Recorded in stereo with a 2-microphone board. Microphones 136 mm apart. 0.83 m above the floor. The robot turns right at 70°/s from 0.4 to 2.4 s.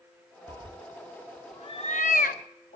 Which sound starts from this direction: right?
A cat meowing, at 0.5 s.